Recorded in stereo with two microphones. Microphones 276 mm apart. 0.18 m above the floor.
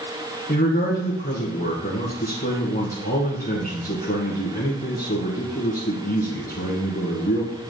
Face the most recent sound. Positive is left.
turn(degrees=35)  # may be behind; listen again after turning